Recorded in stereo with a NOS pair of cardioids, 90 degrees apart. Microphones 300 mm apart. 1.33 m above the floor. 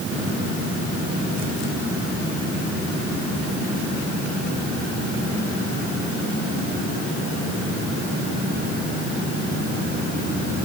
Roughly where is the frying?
No frying in this recording.